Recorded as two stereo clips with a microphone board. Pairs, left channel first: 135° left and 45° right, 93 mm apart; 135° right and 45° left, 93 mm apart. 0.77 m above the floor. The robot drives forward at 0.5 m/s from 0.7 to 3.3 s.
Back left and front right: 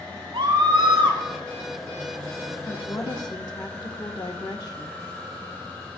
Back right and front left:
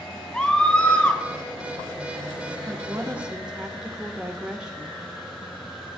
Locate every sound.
0.3 s a scream: 60° right, 3 m; by 1.2 s 65° right, 3 m
2.7 s a woman speaking: 90° left, 0.7 m; by 5.0 s 125° left, 0.8 m